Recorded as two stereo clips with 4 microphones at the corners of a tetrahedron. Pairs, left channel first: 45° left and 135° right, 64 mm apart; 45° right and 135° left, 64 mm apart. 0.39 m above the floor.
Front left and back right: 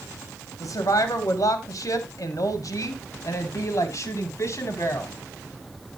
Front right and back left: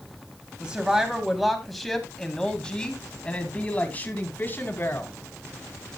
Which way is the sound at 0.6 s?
60° left.